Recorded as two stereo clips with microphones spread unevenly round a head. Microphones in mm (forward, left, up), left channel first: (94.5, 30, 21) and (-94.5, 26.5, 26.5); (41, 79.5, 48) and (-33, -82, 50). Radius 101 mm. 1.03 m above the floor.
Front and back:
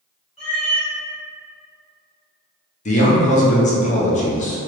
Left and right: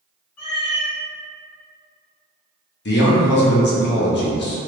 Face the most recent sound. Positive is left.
turn(degrees=50)